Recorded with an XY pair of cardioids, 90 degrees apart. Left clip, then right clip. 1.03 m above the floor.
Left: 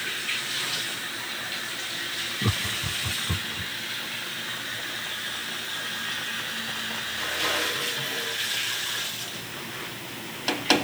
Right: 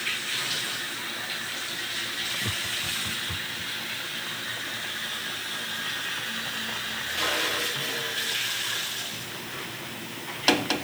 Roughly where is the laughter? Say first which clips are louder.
Left 1 dB; ahead left.